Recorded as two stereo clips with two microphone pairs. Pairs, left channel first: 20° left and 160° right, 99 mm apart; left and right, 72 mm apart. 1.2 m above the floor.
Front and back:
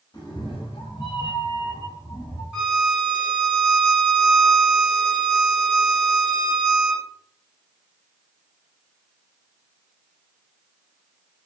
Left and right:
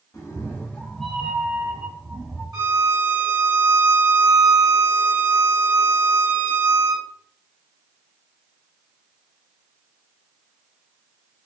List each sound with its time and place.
0.1 s a cat meowing: 55° left, 0.8 m; by 2.4 s 45° right, 1.3 m
2.5 s a violin: 75° right, 1.6 m